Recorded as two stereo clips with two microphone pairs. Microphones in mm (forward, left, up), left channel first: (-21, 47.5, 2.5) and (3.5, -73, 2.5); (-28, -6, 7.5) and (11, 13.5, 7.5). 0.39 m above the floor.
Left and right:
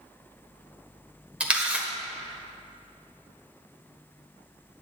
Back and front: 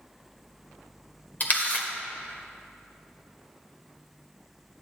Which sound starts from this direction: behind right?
A camera shutter, at 1.4 s.